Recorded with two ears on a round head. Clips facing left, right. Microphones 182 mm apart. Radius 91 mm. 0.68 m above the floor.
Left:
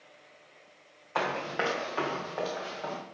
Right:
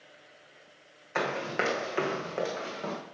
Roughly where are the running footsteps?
Right.